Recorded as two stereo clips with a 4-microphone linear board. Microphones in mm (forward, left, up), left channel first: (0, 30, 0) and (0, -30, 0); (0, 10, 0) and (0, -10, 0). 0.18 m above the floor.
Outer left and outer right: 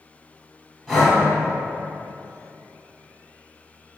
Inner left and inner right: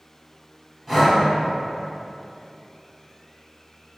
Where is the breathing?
Centre (ahead or behind), 1.1 m.